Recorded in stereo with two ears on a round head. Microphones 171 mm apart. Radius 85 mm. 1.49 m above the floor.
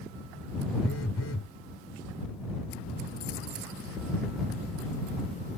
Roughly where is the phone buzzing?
Left.